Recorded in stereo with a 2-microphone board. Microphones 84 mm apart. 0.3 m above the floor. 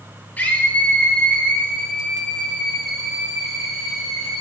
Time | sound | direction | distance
0.4 | a scream | 20° left (ahead or behind) | 7 m